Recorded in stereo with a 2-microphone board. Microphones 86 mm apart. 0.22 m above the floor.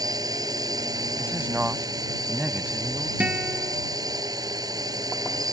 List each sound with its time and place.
0.0 s a drone: 50° right (ahead or behind)
1.2 s a man speaking: 20° right (ahead or behind)
3.2 s a guitar: 15° right (ahead or behind)